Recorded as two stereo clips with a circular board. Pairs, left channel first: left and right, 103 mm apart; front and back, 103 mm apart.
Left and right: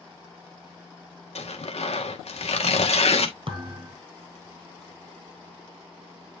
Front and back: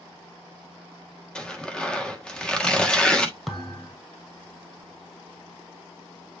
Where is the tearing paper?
80° left, 1.4 m.